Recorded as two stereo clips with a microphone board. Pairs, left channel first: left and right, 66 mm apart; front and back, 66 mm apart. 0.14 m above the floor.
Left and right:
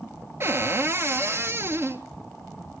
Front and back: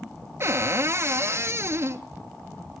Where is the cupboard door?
135° right, 0.8 m.